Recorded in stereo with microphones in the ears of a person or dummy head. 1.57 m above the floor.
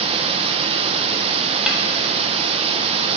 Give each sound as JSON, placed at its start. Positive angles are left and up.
{"t": 0.0, "sound": "running water", "side_deg": -35, "distance_m": 1.0}
{"t": 1.7, "sound": "a snare drum", "side_deg": -5, "distance_m": 2.0}